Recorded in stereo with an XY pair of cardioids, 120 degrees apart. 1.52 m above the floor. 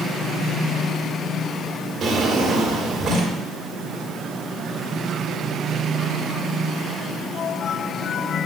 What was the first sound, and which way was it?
A drawer, 50° right.